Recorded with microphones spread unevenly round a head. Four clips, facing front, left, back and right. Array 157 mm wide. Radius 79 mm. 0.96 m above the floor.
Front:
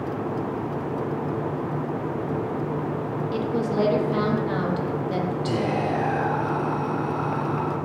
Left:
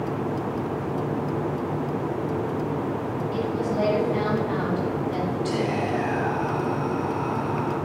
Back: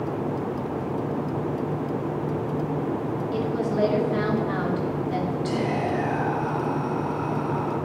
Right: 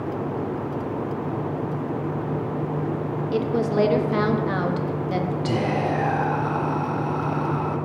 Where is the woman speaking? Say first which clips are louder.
Right 5 dB, front 1 dB; 60° right, 1.4 m.